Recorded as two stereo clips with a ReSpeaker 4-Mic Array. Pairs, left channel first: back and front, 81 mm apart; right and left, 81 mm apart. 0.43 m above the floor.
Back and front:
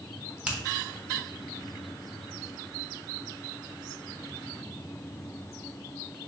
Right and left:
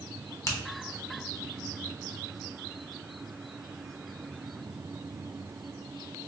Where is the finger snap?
65° right, 0.7 m.